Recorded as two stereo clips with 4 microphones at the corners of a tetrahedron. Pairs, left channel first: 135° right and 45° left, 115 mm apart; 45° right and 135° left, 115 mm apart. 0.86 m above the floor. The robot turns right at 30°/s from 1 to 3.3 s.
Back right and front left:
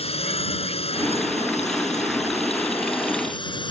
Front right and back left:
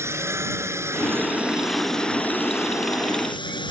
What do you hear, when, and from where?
0.0 s a drone: 160° right; by 3.7 s 90° right